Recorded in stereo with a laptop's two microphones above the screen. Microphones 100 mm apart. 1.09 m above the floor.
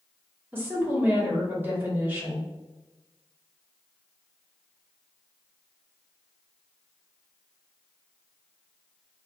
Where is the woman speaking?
20° right (ahead or behind), 1.6 m.